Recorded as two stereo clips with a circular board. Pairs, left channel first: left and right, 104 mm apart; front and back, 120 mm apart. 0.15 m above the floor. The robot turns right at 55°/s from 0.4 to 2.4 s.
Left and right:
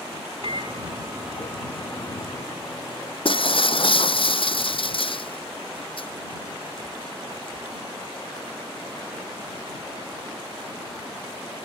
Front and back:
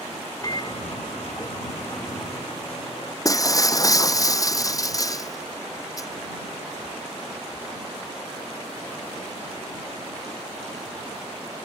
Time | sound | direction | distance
0.4 | a microwave | 60° right | ?
3.2 | breaking glass | 60° left | ?